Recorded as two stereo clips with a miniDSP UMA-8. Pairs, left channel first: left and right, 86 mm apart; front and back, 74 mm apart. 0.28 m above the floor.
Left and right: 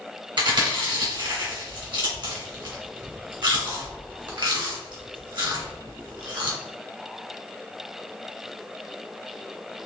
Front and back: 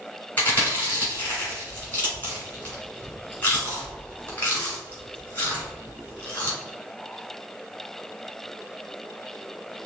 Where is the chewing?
65° right, 1.7 m.